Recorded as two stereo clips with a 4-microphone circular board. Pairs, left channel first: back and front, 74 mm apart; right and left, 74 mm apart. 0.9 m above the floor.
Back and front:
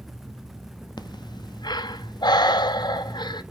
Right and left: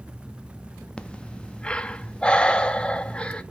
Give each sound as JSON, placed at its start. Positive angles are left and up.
{"t": 1.0, "sound": "breathing", "azimuth_deg": -165, "distance_m": 0.5}